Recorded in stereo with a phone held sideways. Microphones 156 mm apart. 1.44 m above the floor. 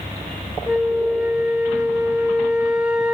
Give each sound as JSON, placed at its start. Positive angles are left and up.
{"t": 0.7, "sound": "a flute", "side_deg": -5, "distance_m": 0.6}